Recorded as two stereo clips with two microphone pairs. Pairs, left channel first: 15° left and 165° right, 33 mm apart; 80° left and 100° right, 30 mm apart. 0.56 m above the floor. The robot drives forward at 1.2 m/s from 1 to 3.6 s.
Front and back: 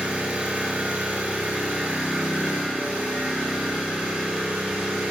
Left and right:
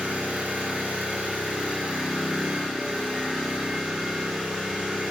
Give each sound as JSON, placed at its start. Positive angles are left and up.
{"t": 0.0, "sound": "an engine running", "azimuth_deg": -130, "distance_m": 3.0}